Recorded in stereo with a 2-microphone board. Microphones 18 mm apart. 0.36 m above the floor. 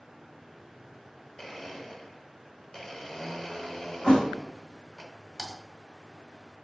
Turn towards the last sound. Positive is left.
turn(degrees=-20)  # may be behind; listen again after turning